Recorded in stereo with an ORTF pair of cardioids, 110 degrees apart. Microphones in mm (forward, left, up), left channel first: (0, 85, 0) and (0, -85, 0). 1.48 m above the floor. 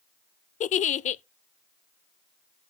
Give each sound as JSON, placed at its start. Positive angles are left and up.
{"t": 0.6, "sound": "a giggle", "azimuth_deg": 45, "distance_m": 0.6}